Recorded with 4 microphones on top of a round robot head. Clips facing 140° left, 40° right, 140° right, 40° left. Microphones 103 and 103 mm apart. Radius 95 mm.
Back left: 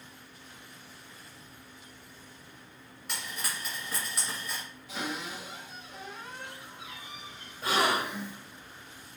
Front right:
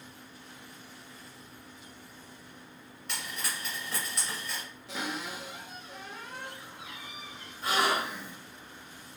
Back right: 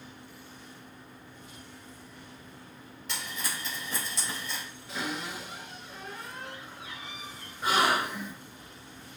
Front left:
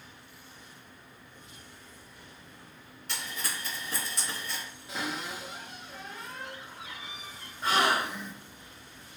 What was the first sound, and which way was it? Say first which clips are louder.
Frying: even, even; 140° right.